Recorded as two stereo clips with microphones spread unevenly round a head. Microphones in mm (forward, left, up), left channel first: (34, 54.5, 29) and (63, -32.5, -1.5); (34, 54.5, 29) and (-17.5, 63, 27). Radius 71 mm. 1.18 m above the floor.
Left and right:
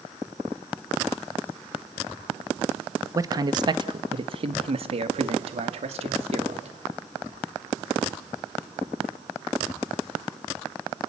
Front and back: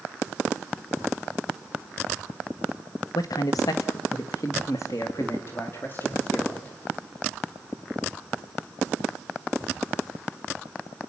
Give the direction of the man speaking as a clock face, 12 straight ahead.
1 o'clock.